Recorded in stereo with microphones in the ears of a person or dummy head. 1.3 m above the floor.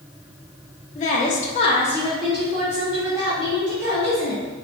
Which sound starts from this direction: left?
A woman speaking, at 0.9 s.